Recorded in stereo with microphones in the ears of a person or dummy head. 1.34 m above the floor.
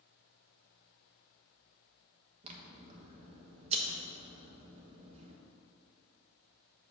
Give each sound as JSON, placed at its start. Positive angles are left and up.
{"t": 2.4, "sound": "scissors", "side_deg": -30, "distance_m": 1.0}